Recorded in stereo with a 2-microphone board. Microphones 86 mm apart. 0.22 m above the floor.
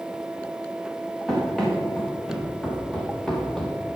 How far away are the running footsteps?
About 4 m.